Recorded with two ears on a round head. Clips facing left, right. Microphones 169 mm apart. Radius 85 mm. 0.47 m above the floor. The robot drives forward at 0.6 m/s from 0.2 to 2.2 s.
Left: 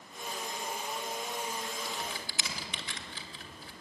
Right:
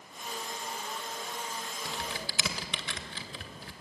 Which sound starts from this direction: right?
Typing on a keyboard, at 1.9 s.